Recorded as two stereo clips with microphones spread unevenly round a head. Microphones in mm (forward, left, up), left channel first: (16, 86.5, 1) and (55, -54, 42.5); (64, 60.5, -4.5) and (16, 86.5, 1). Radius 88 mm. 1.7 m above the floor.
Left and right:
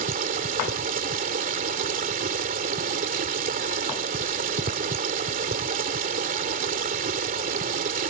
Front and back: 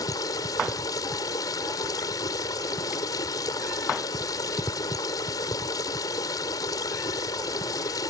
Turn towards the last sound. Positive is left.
turn(degrees=-50)